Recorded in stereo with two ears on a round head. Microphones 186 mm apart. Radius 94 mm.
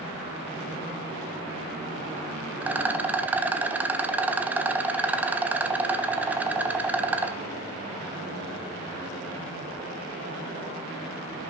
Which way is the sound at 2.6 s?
10° right (ahead or behind).